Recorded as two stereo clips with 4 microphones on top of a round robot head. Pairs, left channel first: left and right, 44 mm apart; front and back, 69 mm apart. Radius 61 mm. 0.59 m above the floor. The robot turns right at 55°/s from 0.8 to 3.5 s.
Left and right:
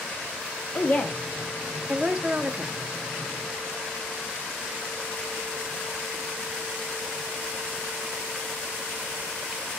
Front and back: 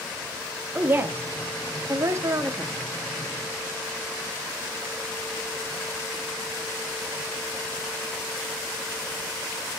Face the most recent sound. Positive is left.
turn(degrees=-90)